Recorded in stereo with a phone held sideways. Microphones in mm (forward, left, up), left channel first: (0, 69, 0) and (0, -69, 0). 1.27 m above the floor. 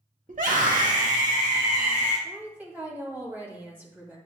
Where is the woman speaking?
15° right (ahead or behind), 2.5 m.